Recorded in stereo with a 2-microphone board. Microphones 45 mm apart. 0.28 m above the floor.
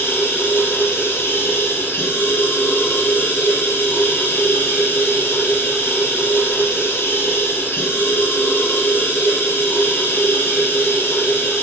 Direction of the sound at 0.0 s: 55° left (ahead or behind).